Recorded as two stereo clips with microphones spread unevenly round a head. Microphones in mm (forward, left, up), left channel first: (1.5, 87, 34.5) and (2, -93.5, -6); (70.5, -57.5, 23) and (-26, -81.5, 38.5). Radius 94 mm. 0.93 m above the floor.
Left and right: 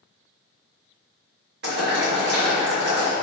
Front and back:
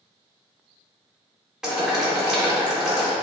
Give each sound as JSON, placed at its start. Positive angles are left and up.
{"t": 1.6, "sound": "boiling", "azimuth_deg": -80, "distance_m": 1.6}